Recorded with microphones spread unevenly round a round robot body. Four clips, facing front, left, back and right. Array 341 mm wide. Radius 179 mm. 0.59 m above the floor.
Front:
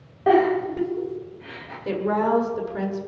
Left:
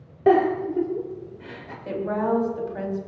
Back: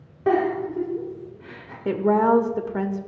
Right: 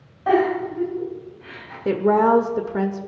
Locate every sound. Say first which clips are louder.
0.3 s a giggle: left 1 dB, front 3 dB; 95° left, 3.5 m
1.9 s a woman speaking: right 8 dB, back 3 dB; 120° right, 1.8 m